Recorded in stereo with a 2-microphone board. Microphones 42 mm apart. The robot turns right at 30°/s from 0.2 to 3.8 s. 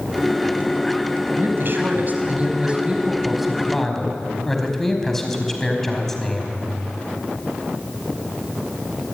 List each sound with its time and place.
1.4 s a man speaking: 65° right, 4.5 m; by 6.6 s 10° left, 4.5 m